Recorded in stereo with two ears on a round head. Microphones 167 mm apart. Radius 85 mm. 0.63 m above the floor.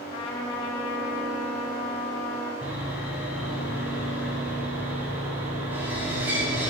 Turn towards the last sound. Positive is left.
turn(degrees=-10)  # may be behind; listen again after turning